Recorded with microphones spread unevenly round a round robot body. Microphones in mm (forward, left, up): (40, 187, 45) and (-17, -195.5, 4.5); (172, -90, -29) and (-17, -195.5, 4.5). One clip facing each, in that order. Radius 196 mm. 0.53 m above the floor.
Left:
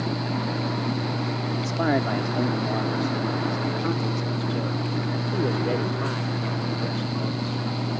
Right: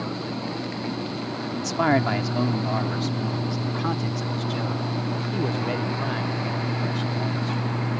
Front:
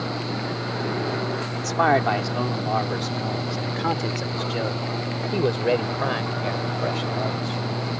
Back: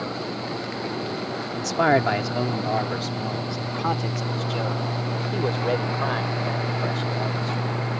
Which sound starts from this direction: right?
A man speaking, at 1.5 s.